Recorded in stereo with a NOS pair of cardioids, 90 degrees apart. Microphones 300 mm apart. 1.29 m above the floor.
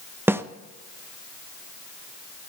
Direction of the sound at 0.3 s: 10° right.